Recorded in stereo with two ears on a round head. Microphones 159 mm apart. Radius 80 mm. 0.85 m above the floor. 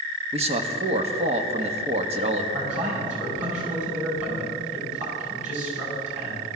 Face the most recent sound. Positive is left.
turn(degrees=-40)  # may be behind; listen again after turning